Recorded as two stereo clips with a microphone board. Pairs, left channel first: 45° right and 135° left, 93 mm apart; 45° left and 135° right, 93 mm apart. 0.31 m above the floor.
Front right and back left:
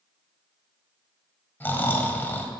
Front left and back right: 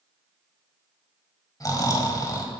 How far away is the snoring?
About 1.1 m.